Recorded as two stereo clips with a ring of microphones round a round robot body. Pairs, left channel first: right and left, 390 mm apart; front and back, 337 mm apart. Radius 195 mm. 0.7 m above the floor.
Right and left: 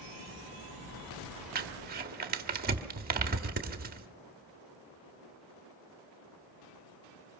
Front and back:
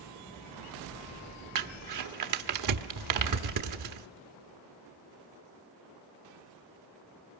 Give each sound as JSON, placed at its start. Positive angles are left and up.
{"t": 1.6, "sound": "crumpling", "azimuth_deg": 155, "distance_m": 1.3}